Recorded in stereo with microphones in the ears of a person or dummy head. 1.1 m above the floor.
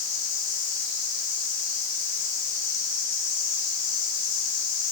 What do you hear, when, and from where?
0.0 s an insect: 45° left (ahead or behind), 9 m